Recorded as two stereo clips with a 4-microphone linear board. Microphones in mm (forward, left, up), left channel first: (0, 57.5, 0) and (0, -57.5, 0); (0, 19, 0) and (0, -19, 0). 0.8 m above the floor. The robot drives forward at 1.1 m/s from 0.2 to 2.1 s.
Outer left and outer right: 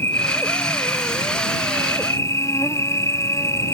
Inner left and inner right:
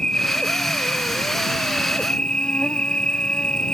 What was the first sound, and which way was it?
An insect, 20° left (ahead or behind).